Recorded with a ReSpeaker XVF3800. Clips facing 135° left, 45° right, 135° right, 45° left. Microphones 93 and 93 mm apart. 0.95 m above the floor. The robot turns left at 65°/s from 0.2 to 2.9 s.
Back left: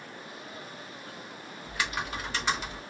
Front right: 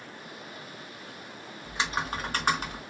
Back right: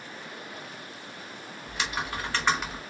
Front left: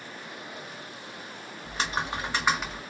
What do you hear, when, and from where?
1.6 s typing on a keyboard: 20° left, 1.2 m; by 2.8 s 55° right, 1.2 m